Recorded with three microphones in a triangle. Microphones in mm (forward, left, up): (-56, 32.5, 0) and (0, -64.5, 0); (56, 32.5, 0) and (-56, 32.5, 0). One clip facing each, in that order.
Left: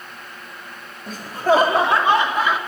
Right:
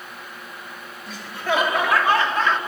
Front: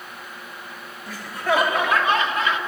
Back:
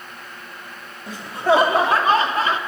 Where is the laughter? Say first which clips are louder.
Left 7 dB, back 5 dB; 120° left, 1.5 m; by 2.6 s 160° right, 1.4 m.